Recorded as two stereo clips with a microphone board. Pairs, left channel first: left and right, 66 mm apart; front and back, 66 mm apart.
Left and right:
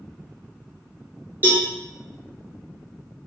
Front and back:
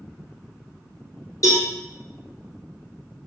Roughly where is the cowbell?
Ahead right.